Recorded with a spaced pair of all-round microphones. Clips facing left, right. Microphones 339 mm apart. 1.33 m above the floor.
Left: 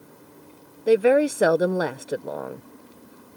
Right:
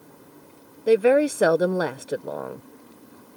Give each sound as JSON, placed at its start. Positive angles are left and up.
{"t": 0.9, "sound": "a woman speaking", "side_deg": 0}